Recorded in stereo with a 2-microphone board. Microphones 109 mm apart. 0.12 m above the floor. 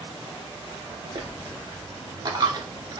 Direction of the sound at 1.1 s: 40° right (ahead or behind).